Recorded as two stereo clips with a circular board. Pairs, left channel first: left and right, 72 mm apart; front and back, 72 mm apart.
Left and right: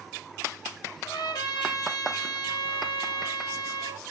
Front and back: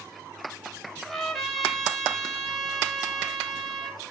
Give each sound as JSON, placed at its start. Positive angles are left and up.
{"t": 1.1, "sound": "a trumpet", "azimuth_deg": 85, "distance_m": 0.7}